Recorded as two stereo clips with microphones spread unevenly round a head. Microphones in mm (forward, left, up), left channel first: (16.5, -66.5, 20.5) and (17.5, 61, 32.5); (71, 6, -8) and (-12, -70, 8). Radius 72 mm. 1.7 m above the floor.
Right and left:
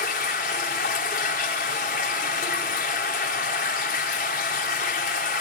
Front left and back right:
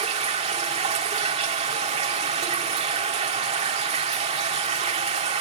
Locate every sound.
0.0 s running water: 120° right, 2.5 m